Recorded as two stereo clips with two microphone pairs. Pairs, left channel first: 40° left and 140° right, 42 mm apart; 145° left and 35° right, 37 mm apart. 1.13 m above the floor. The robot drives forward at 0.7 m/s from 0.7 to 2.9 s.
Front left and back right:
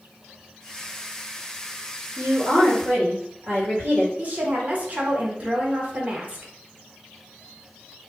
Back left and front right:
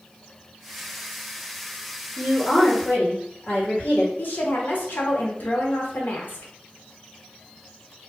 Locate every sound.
2.2 s a woman speaking: 170° right, 1.6 m; by 4.1 s 175° right, 2 m
4.2 s a woman speaking: 170° left, 0.8 m